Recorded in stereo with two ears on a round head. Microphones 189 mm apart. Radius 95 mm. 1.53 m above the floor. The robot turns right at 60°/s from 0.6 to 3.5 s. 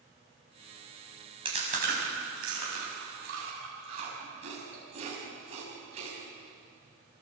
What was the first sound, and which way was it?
Chewing, 25° right (ahead or behind).